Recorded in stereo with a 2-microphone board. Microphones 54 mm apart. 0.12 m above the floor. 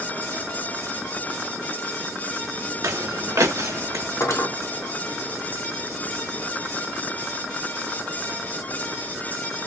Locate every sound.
2.8 s footsteps: 65° right (ahead or behind), 0.7 m; by 4.0 s 85° right, 1.9 m
4.2 s cutlery clinking: 70° left (ahead or behind), 2 m